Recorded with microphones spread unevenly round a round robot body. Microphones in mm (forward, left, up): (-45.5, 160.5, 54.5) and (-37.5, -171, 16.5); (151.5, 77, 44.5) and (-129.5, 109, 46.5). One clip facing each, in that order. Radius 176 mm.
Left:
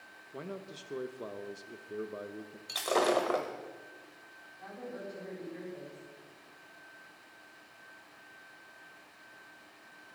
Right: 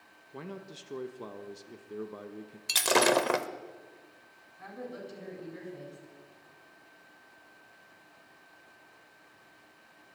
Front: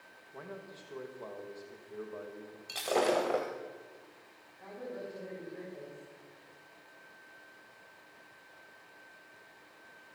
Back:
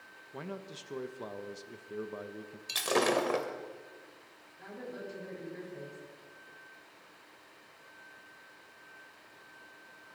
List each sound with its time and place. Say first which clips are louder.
0.3 s a man speaking: even, back 4 dB; 160° right, 1.1 m
2.7 s breaking glass: right 3 dB, even; 125° right, 0.9 m
4.6 s a woman speaking: right 1 dB, front 1 dB; 125° right, 9 m